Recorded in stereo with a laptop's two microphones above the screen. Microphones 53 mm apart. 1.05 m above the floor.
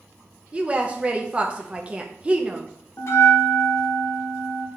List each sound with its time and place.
0.5 s a woman speaking: 20° right (ahead or behind), 0.5 m
3.0 s a bell: 60° left (ahead or behind), 0.9 m